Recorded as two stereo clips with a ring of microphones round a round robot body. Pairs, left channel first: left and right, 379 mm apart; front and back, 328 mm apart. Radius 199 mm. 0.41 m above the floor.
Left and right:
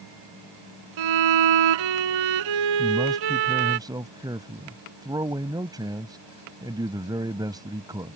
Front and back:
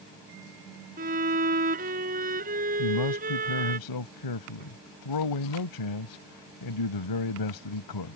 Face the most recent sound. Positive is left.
turn(degrees=-10)